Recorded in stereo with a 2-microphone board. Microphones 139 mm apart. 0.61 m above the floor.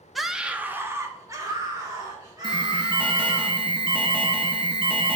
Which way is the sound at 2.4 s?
35° right (ahead or behind).